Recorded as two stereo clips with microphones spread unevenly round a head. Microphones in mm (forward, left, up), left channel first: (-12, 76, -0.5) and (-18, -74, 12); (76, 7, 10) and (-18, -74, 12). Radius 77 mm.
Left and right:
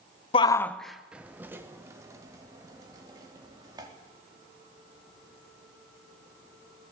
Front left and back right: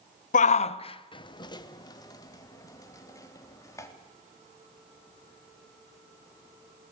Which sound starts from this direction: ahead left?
A shout, at 0.3 s.